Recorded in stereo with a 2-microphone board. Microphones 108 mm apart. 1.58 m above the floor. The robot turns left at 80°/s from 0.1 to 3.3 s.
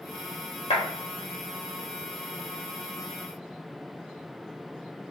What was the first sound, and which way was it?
A clap, 85° left.